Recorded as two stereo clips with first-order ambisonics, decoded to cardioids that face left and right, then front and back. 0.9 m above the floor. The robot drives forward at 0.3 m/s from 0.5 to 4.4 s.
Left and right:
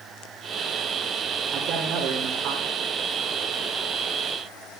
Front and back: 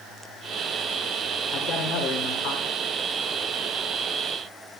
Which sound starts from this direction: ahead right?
A man speaking, at 1.5 s.